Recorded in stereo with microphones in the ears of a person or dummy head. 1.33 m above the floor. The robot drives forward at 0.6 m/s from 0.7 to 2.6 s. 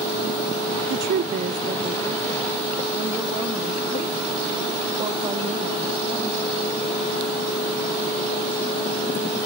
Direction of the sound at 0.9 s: 60° right (ahead or behind).